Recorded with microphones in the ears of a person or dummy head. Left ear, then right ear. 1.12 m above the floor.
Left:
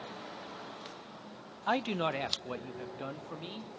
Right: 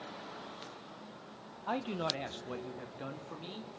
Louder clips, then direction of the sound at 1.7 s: Left 4 dB; 40° left (ahead or behind).